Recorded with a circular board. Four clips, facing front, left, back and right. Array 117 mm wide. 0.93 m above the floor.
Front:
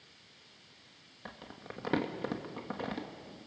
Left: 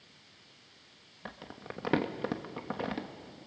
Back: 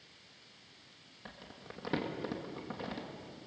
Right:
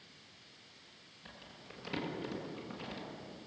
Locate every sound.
1.2 s crumpling: 65° left, 1.6 m